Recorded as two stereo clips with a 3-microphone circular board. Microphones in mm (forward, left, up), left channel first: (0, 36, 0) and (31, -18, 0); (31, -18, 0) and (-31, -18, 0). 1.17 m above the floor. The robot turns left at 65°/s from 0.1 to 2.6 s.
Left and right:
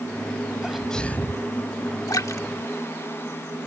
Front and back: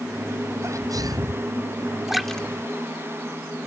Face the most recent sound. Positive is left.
turn(degrees=65)